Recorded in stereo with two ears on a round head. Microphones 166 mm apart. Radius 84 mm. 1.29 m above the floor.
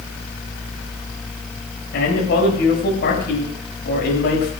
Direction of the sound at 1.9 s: 65° left (ahead or behind).